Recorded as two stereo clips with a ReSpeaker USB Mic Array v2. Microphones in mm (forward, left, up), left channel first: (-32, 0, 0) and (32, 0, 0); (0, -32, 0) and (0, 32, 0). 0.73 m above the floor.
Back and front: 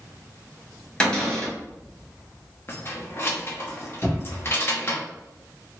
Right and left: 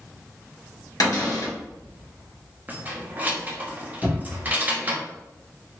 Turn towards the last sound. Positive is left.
turn(degrees=-90)